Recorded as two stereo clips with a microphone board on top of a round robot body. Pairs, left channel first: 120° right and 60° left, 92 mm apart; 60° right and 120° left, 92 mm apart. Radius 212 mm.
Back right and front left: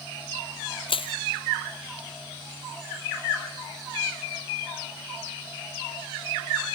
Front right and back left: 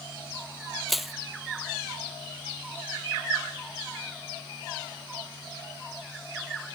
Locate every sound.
0.9 s crushing: 150° right